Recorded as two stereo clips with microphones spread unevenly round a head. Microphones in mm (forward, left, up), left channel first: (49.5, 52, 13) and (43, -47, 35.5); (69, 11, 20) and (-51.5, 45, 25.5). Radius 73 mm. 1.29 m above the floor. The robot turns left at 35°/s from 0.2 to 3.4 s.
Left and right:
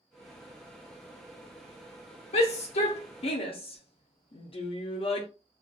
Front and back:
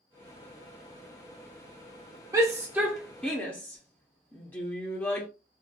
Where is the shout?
100° left, 0.6 m; by 5.3 s 60° left, 0.6 m.